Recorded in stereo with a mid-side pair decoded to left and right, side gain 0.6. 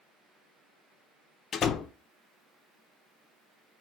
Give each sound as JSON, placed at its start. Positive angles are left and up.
{"t": 1.5, "sound": "a door slam", "azimuth_deg": 45, "distance_m": 0.5}